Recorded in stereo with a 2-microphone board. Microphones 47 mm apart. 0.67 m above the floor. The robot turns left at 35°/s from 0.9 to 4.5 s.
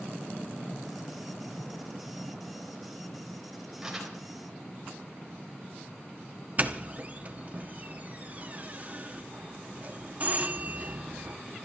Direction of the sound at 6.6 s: 35° right (ahead or behind).